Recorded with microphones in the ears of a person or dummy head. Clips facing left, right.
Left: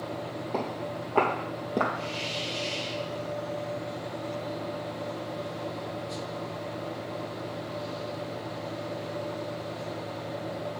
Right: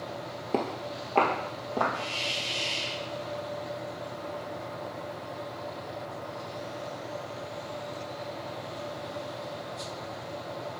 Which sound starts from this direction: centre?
Footsteps, at 0.5 s.